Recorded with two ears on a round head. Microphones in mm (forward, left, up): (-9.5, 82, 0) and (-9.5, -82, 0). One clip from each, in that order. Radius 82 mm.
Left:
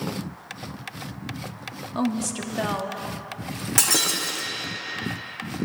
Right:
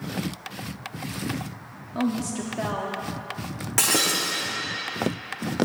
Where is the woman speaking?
30° left (ahead or behind), 1.0 m.